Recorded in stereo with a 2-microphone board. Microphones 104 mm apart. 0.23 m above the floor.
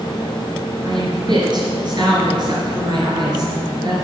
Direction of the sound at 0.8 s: 50° right (ahead or behind).